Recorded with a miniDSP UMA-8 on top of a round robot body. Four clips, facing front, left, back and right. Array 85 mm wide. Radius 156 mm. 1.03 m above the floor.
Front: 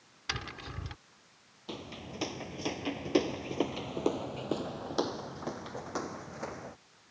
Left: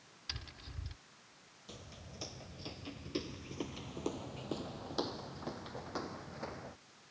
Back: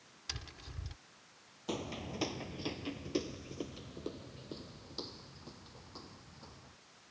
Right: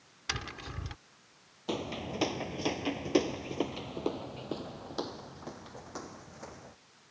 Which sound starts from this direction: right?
Footsteps, at 1.7 s.